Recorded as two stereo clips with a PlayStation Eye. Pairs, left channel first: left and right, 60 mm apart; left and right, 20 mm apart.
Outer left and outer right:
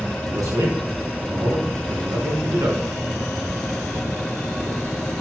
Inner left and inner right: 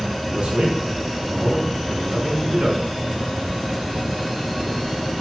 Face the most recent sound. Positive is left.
turn(degrees=-75)  # may be behind; listen again after turning